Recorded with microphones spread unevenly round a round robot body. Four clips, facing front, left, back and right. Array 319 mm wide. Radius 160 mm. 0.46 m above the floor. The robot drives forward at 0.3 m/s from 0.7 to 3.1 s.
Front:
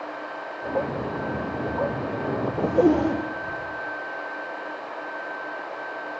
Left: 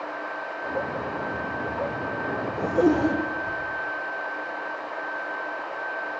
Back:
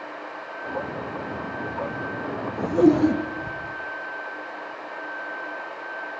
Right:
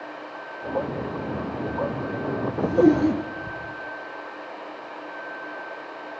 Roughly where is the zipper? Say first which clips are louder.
Right 3 dB, back 2 dB; behind right.